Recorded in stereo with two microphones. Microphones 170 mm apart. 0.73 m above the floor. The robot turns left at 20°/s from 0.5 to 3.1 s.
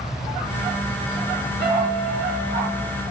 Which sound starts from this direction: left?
A piano, at 1.6 s.